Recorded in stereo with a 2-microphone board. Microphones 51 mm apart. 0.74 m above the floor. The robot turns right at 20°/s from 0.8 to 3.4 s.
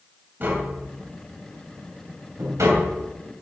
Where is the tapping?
35° right (ahead or behind), 2.5 m; by 3.0 s 80° right, 2.5 m.